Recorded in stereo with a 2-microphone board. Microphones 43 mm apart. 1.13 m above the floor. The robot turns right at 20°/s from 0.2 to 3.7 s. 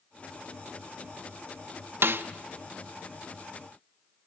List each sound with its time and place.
2.0 s a snare drum: 60° right (ahead or behind), 0.7 m; by 2.2 s 55° right (ahead or behind), 0.7 m